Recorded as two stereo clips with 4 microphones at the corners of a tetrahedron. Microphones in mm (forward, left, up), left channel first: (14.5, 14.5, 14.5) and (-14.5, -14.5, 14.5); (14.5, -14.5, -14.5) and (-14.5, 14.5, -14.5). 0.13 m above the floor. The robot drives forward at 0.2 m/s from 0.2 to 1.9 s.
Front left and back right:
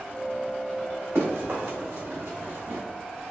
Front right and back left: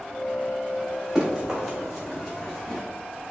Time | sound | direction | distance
1.1 | running footsteps | 145° right | 1.8 m